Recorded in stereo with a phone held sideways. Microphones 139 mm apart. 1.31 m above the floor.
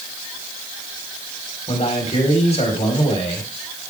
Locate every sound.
1.7 s a man speaking: 45° left (ahead or behind), 3.5 m